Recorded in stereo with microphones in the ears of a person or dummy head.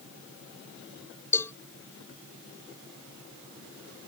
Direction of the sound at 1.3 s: 10° left (ahead or behind).